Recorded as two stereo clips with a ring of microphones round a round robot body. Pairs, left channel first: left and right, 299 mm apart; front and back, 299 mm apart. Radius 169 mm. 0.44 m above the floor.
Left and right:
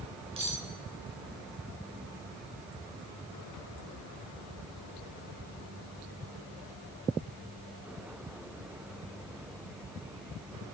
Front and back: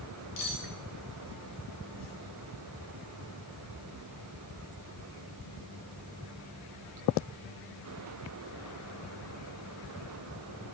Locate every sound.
0.4 s cutlery clinking: 20° right, 3.5 m